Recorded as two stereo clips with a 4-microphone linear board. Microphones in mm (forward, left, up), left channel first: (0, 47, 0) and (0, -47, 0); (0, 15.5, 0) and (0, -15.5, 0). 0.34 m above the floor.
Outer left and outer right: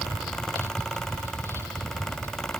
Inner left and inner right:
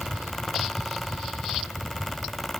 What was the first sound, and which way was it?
Only background noise.